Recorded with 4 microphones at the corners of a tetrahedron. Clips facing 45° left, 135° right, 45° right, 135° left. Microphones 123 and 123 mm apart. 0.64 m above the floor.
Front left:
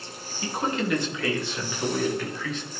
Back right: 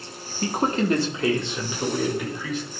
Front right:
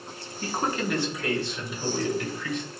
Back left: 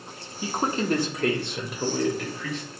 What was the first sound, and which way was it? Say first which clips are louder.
A man speaking: back right 4 dB, back left 2 dB; 145° right.